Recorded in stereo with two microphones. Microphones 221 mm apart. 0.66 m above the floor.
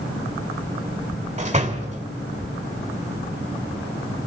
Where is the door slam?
30° right (ahead or behind), 1.7 m.